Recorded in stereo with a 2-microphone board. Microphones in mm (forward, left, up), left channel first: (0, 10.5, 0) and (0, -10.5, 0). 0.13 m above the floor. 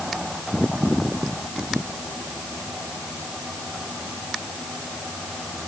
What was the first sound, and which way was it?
Only background noise.